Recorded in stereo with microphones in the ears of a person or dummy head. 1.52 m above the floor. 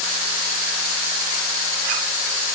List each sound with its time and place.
Only background noise.